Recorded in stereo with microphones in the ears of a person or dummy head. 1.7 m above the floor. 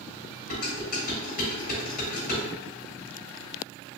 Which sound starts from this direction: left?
Dishes clattering, at 0.5 s.